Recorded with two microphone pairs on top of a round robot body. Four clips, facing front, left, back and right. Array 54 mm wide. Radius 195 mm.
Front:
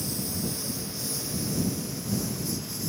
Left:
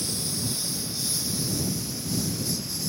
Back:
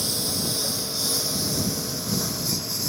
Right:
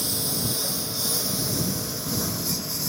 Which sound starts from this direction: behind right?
A lawn mower, at 0.0 s.